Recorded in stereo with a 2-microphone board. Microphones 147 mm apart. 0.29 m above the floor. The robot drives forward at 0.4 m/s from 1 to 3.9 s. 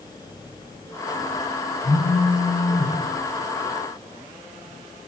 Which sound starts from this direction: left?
A phone buzzing, at 1.8 s.